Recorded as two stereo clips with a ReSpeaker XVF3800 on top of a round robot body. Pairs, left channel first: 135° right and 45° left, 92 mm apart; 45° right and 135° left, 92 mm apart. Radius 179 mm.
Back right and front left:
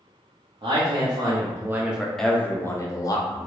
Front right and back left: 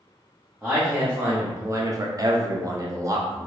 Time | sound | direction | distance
0.6 | a man speaking | 55° left | 1.1 m